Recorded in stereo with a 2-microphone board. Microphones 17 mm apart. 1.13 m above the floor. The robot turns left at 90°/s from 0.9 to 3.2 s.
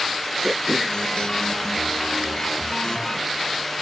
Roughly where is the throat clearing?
Centre.